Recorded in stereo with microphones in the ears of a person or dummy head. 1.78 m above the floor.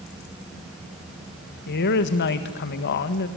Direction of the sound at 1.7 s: 55° left (ahead or behind).